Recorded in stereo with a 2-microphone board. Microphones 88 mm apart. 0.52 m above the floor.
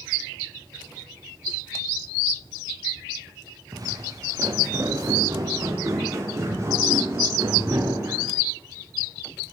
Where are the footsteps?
45° right (ahead or behind), 5.5 m; by 8.3 s 35° right (ahead or behind), 11.5 m.